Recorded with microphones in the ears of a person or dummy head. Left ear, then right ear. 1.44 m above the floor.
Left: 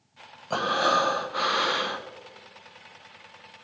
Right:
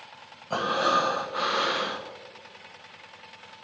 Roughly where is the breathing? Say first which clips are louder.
Left 1 dB; centre.